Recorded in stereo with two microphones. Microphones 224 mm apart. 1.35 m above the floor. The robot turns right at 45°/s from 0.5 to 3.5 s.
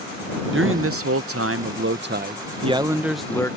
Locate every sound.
0.5 s a man speaking: 120° right; by 3.6 s 15° left